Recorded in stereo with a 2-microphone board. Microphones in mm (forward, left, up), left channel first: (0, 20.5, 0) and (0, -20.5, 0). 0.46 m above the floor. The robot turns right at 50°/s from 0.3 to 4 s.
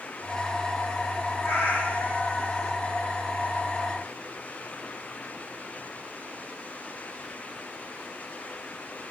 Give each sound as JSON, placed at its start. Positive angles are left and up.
{"t": 1.4, "sound": "a cat meowing", "azimuth_deg": 120, "distance_m": 4.0}